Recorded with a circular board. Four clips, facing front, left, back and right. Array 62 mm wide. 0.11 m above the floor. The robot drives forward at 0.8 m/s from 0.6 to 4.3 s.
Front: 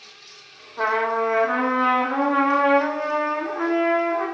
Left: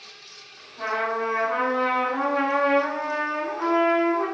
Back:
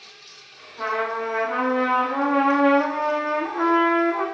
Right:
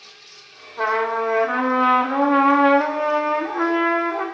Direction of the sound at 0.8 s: 40° right.